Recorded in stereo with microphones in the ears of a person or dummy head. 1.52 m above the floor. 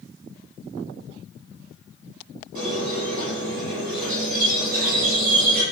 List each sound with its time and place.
2.5 s a squeak: 45° right (ahead or behind), 6.5 m